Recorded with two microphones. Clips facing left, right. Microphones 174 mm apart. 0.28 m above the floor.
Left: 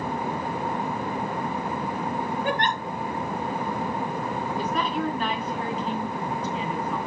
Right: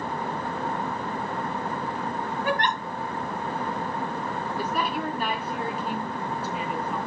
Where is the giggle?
25° left (ahead or behind), 5.5 m.